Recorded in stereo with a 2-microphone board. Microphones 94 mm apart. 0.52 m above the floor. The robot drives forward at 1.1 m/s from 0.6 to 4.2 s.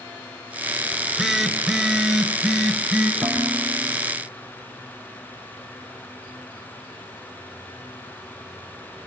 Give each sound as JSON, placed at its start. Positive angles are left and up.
{"t": 0.9, "sound": "a phone buzzing", "side_deg": -5, "distance_m": 0.6}
{"t": 3.2, "sound": "dishes clattering", "side_deg": 0, "distance_m": 6.0}